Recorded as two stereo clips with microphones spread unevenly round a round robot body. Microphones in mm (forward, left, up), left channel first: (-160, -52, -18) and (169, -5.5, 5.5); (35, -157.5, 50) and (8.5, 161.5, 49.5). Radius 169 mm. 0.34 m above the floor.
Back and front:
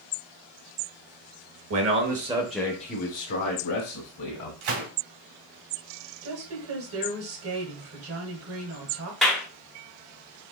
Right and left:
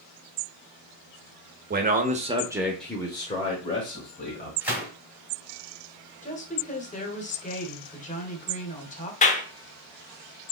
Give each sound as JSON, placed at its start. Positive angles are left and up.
{"t": 1.7, "sound": "a man speaking", "azimuth_deg": 45, "distance_m": 1.1}
{"t": 4.6, "sound": "a gunshot", "azimuth_deg": 10, "distance_m": 2.5}
{"t": 6.2, "sound": "a woman speaking", "azimuth_deg": -25, "distance_m": 1.2}
{"t": 9.2, "sound": "a clap", "azimuth_deg": -95, "distance_m": 0.7}